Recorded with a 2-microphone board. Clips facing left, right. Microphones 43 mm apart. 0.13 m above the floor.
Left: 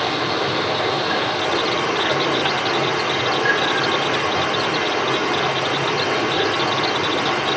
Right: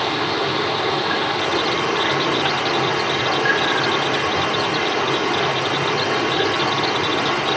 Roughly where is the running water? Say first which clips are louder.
Even; centre.